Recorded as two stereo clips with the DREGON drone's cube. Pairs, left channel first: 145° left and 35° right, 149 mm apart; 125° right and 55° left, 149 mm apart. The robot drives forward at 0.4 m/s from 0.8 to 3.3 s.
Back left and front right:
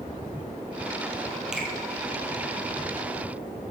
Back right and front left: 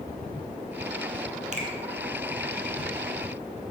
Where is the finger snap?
50° left, 1.9 m.